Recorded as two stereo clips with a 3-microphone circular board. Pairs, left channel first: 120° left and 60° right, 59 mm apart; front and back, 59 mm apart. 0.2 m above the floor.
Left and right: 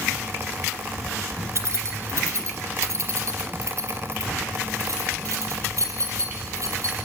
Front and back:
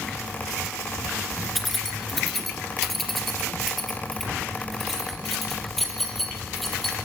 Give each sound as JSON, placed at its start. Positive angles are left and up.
{"t": 1.6, "sound": "keys jangling", "azimuth_deg": -85, "distance_m": 2.0}